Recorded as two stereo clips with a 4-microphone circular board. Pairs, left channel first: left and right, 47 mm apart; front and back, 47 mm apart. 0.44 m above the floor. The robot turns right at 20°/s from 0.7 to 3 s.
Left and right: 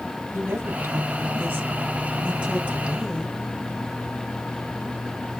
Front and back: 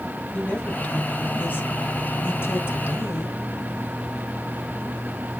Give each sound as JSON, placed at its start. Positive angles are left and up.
{"t": 0.3, "sound": "a woman speaking", "azimuth_deg": -60, "distance_m": 2.5}